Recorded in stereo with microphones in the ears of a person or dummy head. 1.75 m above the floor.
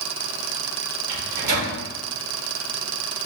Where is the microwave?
45° right (ahead or behind), 3 m.